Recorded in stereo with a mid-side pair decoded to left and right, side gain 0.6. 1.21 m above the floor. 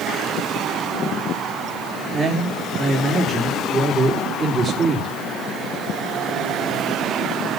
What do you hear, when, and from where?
2.1 s a man speaking: 30° right, 3.5 m